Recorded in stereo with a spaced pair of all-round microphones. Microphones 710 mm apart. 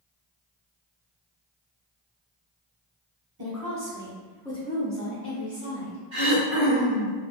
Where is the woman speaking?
35° right (ahead or behind), 0.9 m; by 6.0 s 50° left (ahead or behind), 1.0 m.